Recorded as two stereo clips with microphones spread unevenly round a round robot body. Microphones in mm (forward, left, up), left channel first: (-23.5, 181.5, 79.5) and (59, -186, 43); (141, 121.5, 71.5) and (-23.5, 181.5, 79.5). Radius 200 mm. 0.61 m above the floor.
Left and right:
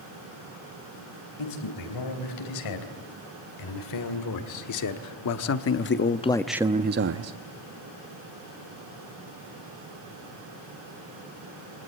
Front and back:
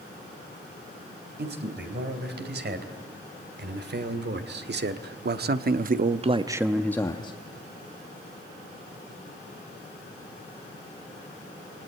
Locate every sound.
1.4 s a man speaking: 140° left, 4 m; by 7.3 s 65° right, 0.8 m